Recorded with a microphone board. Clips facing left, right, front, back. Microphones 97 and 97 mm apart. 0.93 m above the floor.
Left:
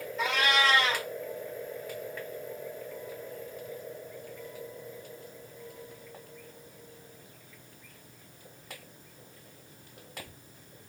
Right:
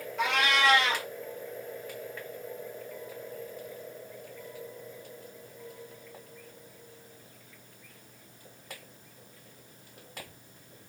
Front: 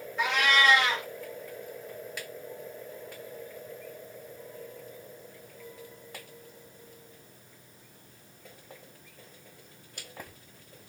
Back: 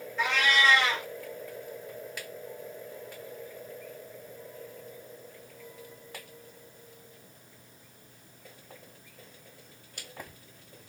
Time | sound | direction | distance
0.2 | a cat meowing | 75° right | 3.5 m